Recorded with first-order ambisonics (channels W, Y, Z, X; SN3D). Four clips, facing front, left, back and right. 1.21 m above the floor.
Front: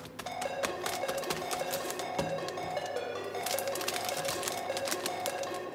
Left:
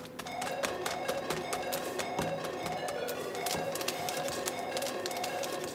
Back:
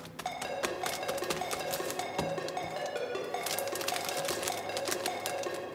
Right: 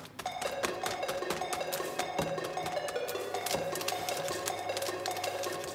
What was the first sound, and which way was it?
A ringtone, 145° right.